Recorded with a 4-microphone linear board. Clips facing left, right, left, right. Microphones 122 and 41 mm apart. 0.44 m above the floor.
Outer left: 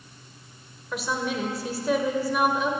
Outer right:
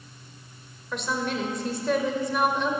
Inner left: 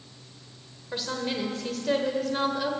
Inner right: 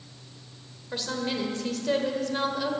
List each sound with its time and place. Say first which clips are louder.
0.9 s a woman speaking: even, even; 5° left (ahead or behind), 1.3 m